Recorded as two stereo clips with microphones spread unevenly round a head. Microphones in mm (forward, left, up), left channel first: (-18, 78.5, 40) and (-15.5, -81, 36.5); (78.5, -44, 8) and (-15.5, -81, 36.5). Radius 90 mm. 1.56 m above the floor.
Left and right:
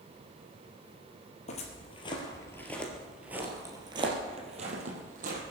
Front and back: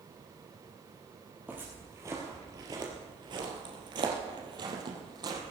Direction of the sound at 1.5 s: 135° left.